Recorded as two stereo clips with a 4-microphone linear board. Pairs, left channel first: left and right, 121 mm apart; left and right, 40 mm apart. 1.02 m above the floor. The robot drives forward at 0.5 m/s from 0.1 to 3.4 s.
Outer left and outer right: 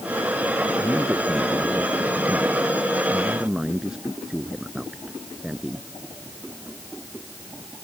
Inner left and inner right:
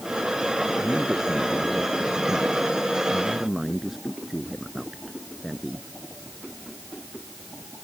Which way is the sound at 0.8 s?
5° right (ahead or behind).